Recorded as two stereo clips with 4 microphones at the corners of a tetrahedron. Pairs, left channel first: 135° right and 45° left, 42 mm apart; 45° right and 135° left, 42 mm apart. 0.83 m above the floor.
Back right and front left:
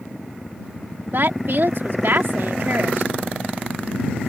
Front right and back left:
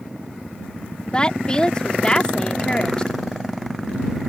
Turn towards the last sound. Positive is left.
turn(degrees=25)